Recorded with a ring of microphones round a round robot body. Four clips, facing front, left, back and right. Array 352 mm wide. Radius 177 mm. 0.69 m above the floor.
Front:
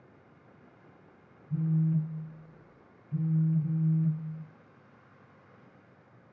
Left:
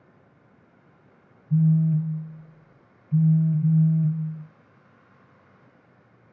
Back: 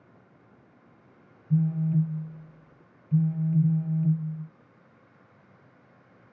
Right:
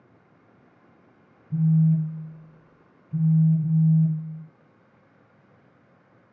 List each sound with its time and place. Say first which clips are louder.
1.5 s a phone buzzing: even, back 3 dB; 175° right, 1.0 m